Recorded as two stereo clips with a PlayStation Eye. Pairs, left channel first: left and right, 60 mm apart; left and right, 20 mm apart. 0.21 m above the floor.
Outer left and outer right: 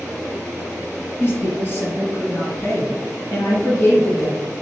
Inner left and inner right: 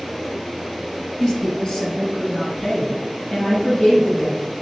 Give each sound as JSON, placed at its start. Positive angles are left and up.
{"t": 1.2, "sound": "a woman speaking", "side_deg": 35, "distance_m": 1.4}